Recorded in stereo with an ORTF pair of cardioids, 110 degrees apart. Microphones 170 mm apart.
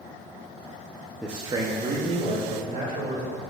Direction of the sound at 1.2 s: Straight ahead.